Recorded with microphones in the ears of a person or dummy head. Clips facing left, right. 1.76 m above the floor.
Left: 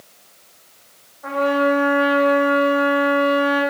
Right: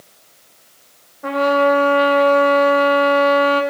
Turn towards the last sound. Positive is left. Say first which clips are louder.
# right 3 dB
turn(degrees=-40)  # may be behind; listen again after turning